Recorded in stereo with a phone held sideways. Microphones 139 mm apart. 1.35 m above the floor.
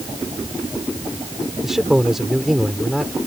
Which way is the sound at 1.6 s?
Centre (ahead or behind).